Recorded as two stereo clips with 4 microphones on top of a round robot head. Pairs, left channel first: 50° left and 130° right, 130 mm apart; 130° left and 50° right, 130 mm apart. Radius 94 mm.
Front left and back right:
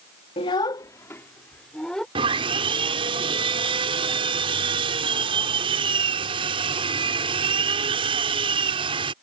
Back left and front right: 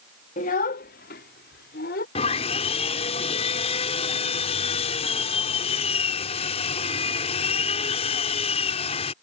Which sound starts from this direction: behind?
Sawing, at 2.1 s.